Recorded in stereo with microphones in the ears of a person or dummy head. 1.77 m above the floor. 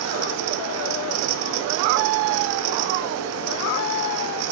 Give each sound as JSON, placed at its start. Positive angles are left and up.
{"t": 0.0, "sound": "a fan", "side_deg": -80, "distance_m": 1.2}